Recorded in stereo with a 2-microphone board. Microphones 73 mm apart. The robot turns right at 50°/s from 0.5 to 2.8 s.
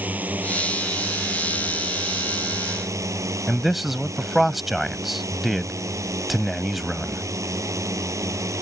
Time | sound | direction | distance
0.0 | a drone | 160° right | ?
3.5 | a man speaking | centre (ahead or behind) | ?